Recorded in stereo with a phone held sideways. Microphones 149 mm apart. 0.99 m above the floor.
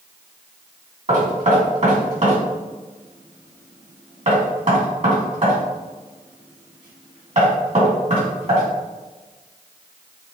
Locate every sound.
1.1 s knocking: 55° right (ahead or behind), 2.0 m